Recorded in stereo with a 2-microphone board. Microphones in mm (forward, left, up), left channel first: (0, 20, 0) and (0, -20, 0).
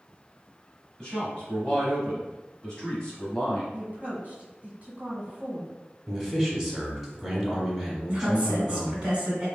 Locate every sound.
1.0 s a man speaking: 20° left (ahead or behind), 1.1 m
3.7 s a woman speaking: 30° right (ahead or behind), 1.5 m
6.1 s a man speaking: centre (ahead or behind), 1.3 m
8.1 s a woman speaking: 20° right (ahead or behind), 1.8 m